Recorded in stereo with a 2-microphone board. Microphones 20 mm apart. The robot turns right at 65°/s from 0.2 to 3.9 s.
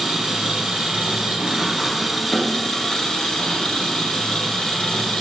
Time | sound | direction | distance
0.0 | an engine running | 140° right | 1.8 m